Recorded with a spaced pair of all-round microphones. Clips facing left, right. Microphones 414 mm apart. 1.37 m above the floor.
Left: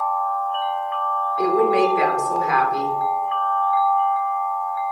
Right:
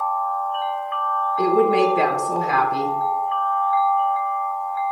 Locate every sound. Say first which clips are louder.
1.4 s a woman speaking: right 1 dB; 50° right (ahead or behind), 0.7 m